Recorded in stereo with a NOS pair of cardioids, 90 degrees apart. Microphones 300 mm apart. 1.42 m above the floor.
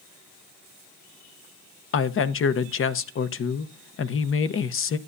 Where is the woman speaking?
45° left, 0.9 m.